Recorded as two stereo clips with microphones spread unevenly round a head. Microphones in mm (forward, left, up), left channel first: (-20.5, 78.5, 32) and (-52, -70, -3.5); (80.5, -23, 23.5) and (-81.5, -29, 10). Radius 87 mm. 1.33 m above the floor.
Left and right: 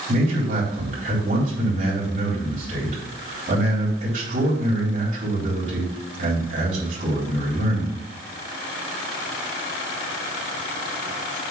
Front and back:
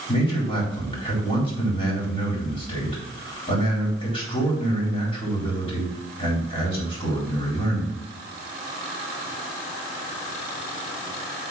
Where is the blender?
No blender in this recording.